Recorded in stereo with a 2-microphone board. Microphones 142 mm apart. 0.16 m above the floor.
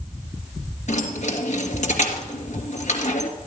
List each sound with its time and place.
0.9 s keys jangling: 60° left (ahead or behind), 2.5 m